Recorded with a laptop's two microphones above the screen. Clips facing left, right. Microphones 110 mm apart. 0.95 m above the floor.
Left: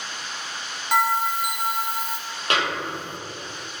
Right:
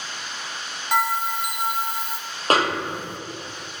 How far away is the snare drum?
About 0.6 m.